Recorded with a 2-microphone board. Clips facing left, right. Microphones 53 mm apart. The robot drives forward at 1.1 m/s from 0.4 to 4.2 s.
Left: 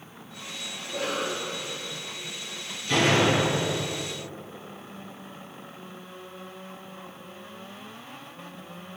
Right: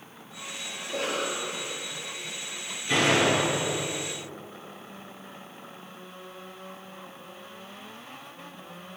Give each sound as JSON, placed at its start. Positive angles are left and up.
{"t": 0.8, "sound": "a cough", "side_deg": -50, "distance_m": 5.5}
{"t": 2.9, "sound": "a door slam", "side_deg": -20, "distance_m": 5.0}